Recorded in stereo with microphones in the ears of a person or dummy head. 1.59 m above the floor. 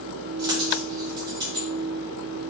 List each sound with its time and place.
0.4 s a dropped coin: 20° right (ahead or behind), 1.2 m